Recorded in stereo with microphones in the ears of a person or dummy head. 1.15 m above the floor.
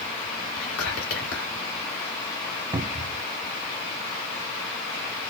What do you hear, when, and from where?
0.6 s whispering: 85° left, 2.5 m
2.7 s a cupboard door: 25° right (ahead or behind), 0.6 m